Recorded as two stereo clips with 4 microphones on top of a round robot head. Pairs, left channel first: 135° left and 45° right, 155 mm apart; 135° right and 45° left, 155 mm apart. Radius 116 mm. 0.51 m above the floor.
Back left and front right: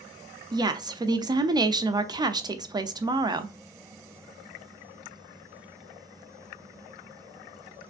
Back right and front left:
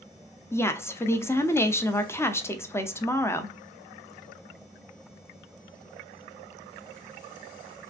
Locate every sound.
0.5 s a woman speaking: 75° right, 0.7 m